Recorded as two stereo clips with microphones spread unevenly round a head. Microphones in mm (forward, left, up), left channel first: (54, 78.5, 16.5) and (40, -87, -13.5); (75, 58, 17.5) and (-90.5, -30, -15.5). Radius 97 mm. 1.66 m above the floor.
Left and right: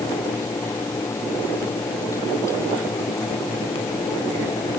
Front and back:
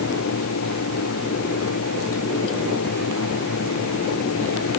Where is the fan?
15° left.